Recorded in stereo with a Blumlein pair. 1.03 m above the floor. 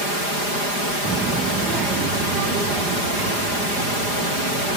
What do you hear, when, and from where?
1.1 s a child speaking: 15° right, 0.7 m; by 4.8 s 35° right, 3 m